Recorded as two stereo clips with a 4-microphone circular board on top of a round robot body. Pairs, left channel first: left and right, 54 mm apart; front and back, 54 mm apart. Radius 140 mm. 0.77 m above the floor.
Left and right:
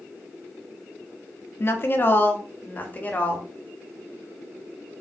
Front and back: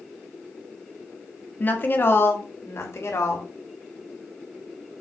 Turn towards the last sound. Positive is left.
turn(degrees=30)